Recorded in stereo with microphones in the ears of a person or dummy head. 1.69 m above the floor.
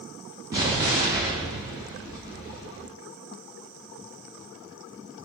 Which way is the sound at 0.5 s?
20° right (ahead or behind).